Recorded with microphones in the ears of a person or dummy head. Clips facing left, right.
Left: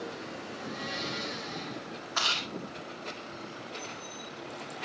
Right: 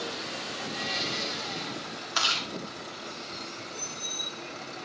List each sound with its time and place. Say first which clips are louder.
0.5 s a blender: right 2 dB; 75° right (ahead or behind), 4 m
2.1 s chewing: right 2 dB; 45° right (ahead or behind), 2 m